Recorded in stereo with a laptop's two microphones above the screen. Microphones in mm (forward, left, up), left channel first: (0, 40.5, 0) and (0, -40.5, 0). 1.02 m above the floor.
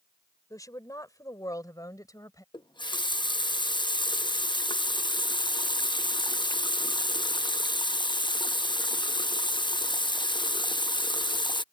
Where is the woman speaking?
45° left (ahead or behind).